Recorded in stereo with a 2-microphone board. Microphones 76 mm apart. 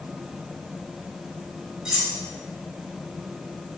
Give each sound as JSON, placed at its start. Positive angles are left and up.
{"t": 1.9, "sound": "cutlery clinking", "side_deg": -10, "distance_m": 1.1}